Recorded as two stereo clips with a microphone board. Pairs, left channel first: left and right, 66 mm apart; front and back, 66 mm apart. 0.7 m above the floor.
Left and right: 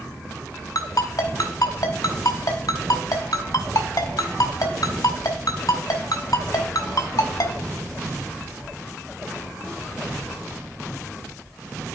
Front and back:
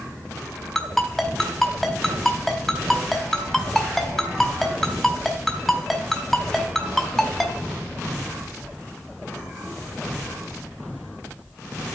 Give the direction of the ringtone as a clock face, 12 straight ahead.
9 o'clock.